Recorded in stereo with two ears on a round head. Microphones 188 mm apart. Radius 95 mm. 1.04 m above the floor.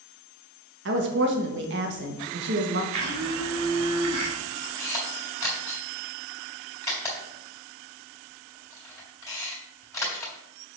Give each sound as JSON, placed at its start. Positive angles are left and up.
{"t": 0.8, "sound": "a woman speaking", "side_deg": -55, "distance_m": 1.3}
{"t": 2.9, "sound": "a blender", "side_deg": -80, "distance_m": 2.5}
{"t": 4.8, "sound": "a camera shutter", "side_deg": 15, "distance_m": 3.0}